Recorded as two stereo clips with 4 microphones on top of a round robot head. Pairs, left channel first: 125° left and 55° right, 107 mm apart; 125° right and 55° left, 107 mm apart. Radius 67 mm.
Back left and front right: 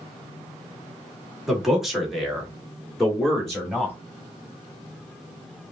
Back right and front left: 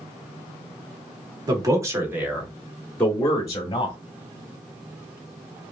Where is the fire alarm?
No fire alarm in this recording.